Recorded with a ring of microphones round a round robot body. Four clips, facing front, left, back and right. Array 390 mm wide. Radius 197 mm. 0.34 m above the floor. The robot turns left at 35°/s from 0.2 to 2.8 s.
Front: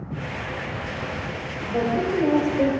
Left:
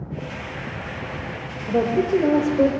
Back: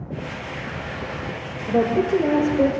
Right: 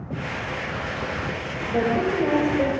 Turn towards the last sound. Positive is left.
turn(degrees=105)